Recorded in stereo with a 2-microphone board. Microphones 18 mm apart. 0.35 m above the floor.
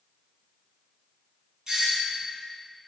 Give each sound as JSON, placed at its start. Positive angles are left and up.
{"t": 1.7, "sound": "a doorbell", "side_deg": -35, "distance_m": 4.5}